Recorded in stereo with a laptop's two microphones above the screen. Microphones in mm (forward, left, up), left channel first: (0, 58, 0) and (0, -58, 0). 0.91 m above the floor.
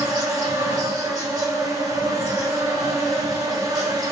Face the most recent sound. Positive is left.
turn(degrees=-35)  # may be behind; listen again after turning